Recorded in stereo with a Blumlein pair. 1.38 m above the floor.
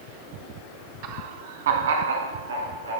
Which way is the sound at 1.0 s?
45° right.